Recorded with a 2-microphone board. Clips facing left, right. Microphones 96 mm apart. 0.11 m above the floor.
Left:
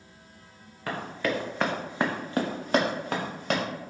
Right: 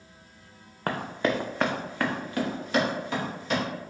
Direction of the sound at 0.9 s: 45° right (ahead or behind).